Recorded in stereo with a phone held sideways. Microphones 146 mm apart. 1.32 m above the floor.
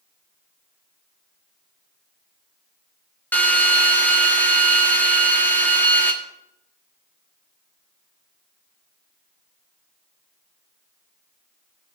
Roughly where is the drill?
Centre.